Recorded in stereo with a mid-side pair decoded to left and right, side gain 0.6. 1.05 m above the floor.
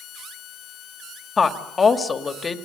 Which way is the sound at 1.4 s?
25° left.